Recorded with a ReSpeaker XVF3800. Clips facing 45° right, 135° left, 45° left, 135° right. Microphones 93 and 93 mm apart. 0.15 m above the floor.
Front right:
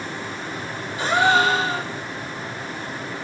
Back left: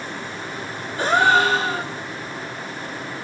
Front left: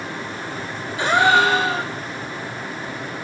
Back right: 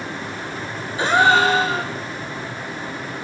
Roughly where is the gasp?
Behind.